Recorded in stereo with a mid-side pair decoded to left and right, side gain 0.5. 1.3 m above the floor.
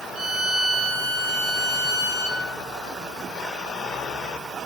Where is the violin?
70° right, 2.0 m.